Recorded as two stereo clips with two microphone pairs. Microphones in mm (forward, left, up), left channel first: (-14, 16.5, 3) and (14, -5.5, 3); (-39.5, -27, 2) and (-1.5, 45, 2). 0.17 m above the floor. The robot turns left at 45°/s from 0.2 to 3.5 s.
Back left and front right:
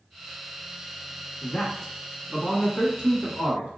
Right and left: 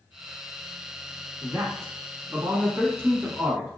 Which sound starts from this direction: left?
A man speaking, at 1.4 s.